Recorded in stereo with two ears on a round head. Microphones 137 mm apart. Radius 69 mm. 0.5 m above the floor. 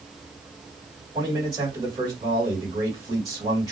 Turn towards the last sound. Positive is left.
turn(degrees=-25)  # may be behind; listen again after turning